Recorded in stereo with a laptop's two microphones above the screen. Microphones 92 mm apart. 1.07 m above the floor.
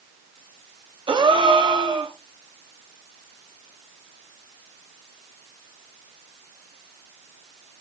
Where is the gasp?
60° right (ahead or behind), 0.6 m.